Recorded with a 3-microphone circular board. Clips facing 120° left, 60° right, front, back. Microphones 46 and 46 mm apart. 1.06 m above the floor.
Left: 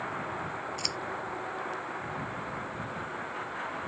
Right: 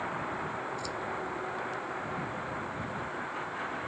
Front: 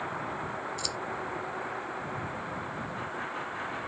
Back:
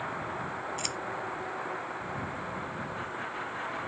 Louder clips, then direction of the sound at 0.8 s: Even, even; 135° left.